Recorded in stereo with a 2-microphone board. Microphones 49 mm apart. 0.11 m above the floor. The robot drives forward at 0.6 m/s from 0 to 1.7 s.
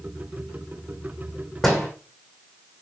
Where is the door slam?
Centre (ahead or behind), 5.5 m.